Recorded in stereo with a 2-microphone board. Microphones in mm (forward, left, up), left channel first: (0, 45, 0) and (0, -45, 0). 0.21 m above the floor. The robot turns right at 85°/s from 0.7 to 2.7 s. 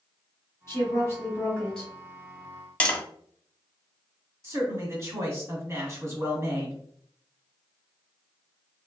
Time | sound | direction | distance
0.7 | a woman speaking | 30° left (ahead or behind) | 1.6 m
2.8 | tapping | 15° left (ahead or behind) | 0.8 m
4.4 | a man speaking | 30° right (ahead or behind) | 1.5 m